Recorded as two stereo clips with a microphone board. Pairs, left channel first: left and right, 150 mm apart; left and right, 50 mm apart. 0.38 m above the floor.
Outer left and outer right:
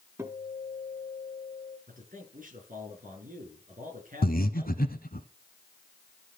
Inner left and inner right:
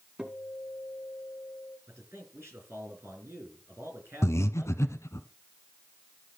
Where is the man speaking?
60° right (ahead or behind), 6 m.